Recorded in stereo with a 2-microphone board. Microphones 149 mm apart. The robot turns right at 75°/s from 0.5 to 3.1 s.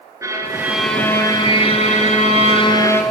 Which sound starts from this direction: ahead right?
A violin, at 0.2 s.